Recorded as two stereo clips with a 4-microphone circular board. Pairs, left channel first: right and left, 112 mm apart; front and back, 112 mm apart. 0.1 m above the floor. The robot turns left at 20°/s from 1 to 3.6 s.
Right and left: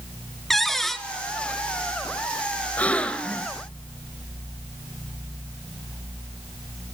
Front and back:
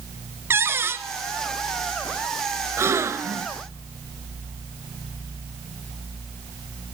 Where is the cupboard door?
175° right, 0.9 m.